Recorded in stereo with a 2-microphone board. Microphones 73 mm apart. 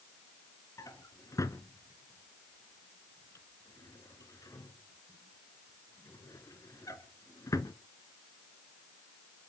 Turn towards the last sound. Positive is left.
turn(degrees=50)  # may be behind; listen again after turning